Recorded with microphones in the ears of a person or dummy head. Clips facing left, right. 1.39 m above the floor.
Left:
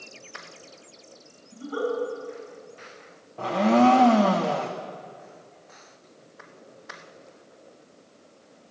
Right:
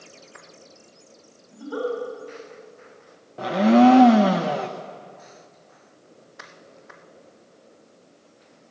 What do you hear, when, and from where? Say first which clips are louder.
1.5 s a giggle: right 1 dB; 75° right (ahead or behind), 6.5 m
3.4 s a blender: right 4 dB; 15° right (ahead or behind), 0.6 m